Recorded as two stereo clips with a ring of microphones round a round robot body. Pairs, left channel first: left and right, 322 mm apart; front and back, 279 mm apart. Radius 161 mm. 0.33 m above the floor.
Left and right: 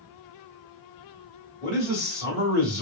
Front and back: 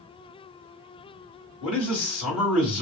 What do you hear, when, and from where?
1.6 s a man speaking: 5° left, 1.8 m